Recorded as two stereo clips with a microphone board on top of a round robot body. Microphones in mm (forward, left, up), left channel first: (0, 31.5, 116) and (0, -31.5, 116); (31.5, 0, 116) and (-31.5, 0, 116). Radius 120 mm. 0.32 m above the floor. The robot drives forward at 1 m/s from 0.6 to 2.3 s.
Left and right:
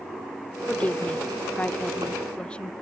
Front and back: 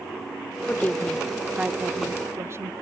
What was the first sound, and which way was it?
A woman speaking, 30° left.